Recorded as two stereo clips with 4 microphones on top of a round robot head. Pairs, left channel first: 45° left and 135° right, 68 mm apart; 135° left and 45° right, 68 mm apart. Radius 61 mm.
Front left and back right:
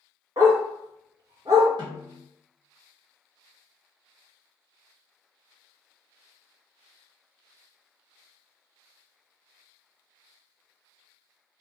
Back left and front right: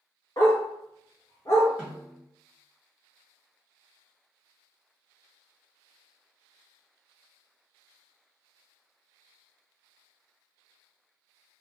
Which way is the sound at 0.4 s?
175° right.